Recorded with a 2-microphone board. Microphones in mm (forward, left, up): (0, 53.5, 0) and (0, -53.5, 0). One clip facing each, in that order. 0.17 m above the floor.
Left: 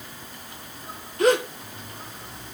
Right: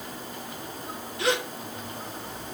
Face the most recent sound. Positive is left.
turn(degrees=45)  # may be behind; listen again after turning